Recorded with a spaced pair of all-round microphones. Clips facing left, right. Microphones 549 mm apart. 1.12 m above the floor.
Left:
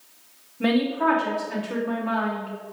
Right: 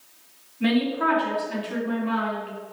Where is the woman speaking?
65° left (ahead or behind), 1.0 m.